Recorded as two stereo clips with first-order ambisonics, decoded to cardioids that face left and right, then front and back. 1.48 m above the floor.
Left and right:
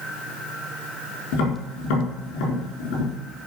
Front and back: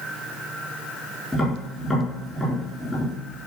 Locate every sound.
1.3 s tapping: 80° left, 4.5 m